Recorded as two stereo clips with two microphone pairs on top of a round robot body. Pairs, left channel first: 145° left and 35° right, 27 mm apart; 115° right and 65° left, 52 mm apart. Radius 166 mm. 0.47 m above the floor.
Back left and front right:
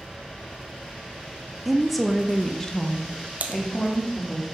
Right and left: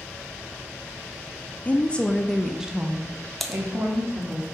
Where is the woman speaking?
105° right, 1.5 m; by 4.4 s 95° left, 2.5 m.